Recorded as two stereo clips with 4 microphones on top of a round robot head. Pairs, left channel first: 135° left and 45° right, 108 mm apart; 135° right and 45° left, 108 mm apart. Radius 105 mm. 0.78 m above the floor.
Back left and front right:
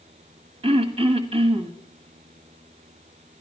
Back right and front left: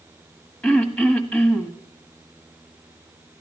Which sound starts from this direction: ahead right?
Throat clearing, at 0.6 s.